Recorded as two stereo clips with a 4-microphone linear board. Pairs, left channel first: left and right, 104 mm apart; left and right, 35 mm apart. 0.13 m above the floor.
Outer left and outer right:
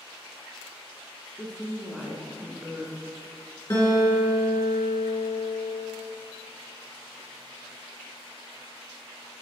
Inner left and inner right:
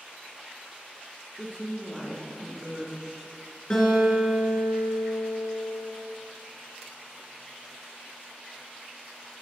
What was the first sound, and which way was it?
A woman speaking, 10° left (ahead or behind).